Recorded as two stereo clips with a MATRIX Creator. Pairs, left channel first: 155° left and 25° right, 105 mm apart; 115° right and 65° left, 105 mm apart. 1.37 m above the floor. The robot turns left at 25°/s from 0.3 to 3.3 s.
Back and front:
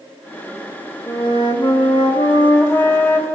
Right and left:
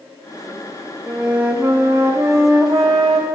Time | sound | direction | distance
1.1 | a flute | 150° left | 1.3 m